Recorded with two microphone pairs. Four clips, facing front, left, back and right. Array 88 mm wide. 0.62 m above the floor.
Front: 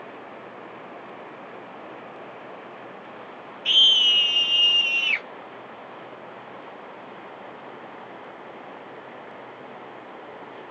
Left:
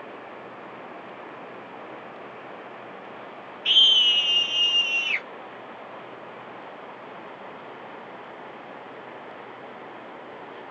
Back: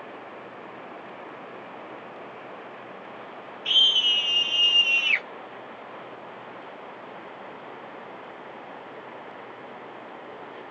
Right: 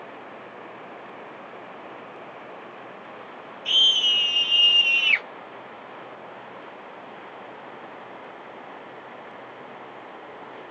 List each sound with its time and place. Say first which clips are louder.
3.6 s a scream: left 2 dB, front 3 dB; 40° left, 0.9 m; by 5.3 s 110° right, 0.7 m